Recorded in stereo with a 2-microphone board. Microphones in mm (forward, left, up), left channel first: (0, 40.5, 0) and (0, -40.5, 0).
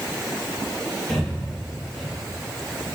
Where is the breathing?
Centre (ahead or behind), 1.0 m.